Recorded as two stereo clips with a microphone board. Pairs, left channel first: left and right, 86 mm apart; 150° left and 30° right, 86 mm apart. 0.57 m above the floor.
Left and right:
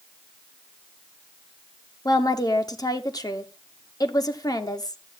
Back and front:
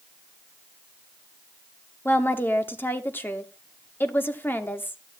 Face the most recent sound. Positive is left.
turn(degrees=95)